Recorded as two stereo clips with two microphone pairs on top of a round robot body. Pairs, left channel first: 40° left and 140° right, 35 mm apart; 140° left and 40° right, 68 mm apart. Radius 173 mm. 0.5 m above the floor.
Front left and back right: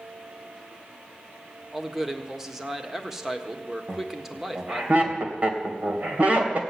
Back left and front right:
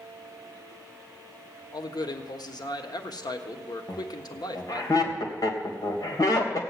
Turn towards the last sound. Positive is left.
turn(degrees=175)